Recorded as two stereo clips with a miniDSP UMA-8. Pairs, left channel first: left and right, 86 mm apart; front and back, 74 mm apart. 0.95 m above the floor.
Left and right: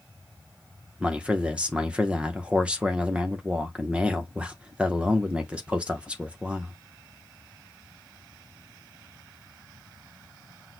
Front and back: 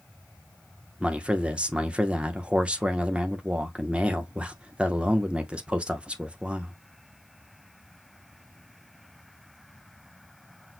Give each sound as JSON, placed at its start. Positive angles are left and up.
{"t": 1.0, "sound": "a man speaking", "azimuth_deg": -135, "distance_m": 0.8}